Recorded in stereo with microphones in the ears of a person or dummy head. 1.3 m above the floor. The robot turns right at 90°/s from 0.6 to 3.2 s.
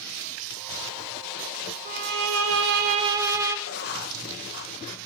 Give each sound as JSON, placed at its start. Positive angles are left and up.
{"t": 1.9, "sound": "a violin", "azimuth_deg": -135, "distance_m": 1.2}
{"t": 3.7, "sound": "writing", "side_deg": 50, "distance_m": 1.3}